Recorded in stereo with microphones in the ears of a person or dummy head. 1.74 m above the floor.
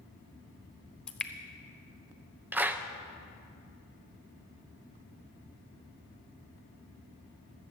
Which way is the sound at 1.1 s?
5° left (ahead or behind).